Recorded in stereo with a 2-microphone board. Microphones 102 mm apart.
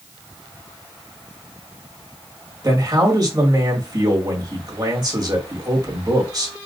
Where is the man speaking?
40° right (ahead or behind), 1.8 m.